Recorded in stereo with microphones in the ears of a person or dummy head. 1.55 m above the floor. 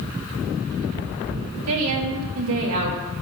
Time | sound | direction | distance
1.7 | a woman speaking | 90° right | 3.5 m